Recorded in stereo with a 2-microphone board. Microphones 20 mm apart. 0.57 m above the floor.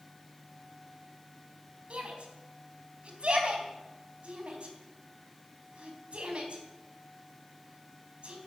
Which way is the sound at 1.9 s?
65° right (ahead or behind).